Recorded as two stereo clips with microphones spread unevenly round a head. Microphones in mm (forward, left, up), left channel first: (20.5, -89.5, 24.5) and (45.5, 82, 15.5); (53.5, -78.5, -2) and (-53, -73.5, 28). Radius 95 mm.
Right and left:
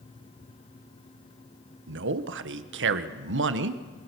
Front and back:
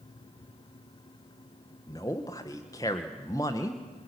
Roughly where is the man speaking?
Left.